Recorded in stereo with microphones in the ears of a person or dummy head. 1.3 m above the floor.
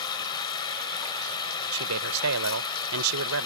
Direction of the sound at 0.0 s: 25° left (ahead or behind).